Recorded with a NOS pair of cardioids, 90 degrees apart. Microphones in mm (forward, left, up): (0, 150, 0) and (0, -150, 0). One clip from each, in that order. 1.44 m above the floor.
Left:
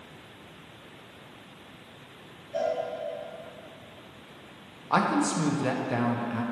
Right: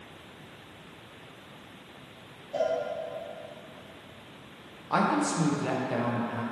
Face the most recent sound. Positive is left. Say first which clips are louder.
# left 1 dB
turn(degrees=10)